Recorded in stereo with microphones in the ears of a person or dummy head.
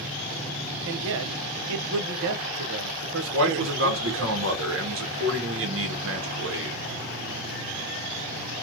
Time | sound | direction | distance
0.8 | a man speaking | 75° right (ahead or behind) | 0.7 m
3.3 | a man speaking | 65° right (ahead or behind) | 1.4 m